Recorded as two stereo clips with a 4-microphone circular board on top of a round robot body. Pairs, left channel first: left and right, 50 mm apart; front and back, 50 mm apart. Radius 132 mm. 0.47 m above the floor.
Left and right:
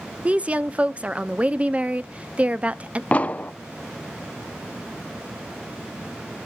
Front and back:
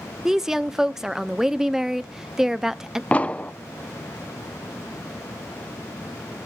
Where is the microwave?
I don't hear a microwave.